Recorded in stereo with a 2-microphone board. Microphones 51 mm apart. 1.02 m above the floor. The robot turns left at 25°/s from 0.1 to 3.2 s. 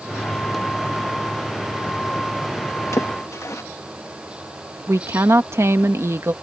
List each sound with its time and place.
2.9 s a splash: 75° left (ahead or behind)
4.9 s a woman speaking: 60° right (ahead or behind)